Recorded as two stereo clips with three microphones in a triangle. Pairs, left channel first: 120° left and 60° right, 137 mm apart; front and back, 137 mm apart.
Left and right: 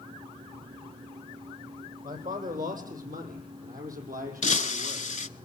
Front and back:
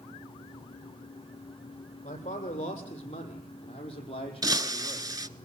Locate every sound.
2.0 s a man speaking: 35° right, 5.5 m; by 5.1 s 50° right, 6 m
4.4 s breaking glass: 125° left, 0.9 m